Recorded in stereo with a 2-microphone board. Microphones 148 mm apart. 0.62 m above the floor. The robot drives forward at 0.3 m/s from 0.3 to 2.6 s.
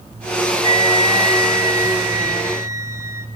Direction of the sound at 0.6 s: 30° right (ahead or behind).